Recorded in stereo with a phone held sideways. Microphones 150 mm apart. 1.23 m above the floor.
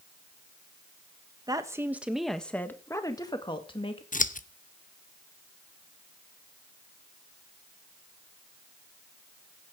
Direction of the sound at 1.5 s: 25° right (ahead or behind).